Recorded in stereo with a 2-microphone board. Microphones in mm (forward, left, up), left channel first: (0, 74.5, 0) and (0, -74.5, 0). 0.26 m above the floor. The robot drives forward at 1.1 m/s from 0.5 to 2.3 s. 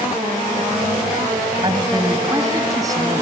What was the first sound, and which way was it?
A man speaking, 35° right (ahead or behind).